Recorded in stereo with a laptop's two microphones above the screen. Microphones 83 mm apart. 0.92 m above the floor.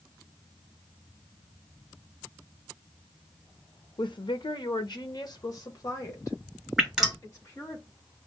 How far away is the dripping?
About 1.7 m.